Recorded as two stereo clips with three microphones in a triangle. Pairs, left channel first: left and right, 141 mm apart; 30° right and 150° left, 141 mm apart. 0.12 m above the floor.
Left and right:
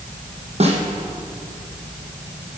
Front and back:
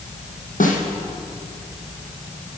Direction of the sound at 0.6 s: 50° right.